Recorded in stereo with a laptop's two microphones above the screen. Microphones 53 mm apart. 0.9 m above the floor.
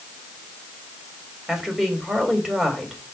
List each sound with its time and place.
1.5 s a woman speaking: 10° right (ahead or behind), 4 m